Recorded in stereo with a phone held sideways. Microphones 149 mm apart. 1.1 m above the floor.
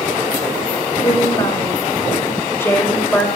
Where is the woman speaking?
30° left (ahead or behind), 6.5 m; by 3.3 s 5° left (ahead or behind), 4.5 m.